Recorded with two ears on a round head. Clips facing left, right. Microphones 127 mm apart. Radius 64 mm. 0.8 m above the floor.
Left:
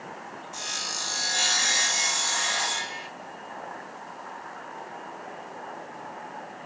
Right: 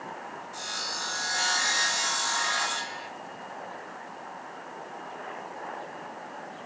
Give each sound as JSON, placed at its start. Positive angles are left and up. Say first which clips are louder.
{"t": 0.5, "sound": "sawing", "louder": "even", "side_deg": 25, "distance_m": 0.9}